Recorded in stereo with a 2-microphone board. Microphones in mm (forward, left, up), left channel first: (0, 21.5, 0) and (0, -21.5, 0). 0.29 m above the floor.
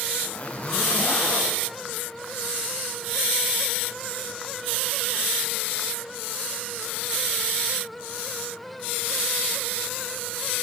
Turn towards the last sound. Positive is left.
turn(degrees=35)  # may be behind; listen again after turning